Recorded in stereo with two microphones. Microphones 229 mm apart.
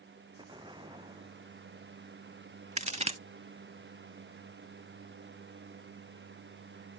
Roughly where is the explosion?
Right.